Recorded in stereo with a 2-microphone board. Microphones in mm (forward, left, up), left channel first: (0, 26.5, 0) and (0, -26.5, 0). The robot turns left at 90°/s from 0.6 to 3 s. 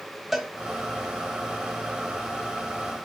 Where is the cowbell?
5° right (ahead or behind), 1.1 m.